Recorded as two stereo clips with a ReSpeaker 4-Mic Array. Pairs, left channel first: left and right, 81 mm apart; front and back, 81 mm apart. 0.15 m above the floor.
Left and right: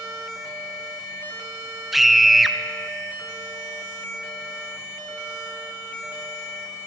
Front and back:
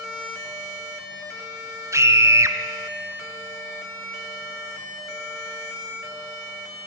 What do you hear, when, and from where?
1.9 s a scream: straight behind, 1.4 m